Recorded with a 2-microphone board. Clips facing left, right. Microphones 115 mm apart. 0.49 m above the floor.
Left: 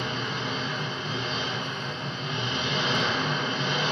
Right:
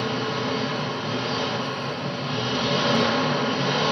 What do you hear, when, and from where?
0.0 s an engine running: 65° right (ahead or behind), 0.9 m